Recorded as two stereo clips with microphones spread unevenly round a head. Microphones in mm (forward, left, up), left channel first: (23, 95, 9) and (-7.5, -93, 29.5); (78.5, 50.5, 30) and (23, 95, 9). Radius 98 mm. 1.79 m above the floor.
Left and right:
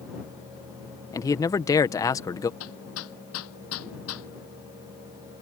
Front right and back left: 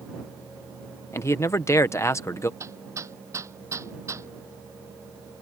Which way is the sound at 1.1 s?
5° left.